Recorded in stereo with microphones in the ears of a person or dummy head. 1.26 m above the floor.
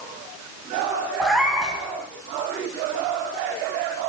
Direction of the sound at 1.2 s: Centre (ahead or behind).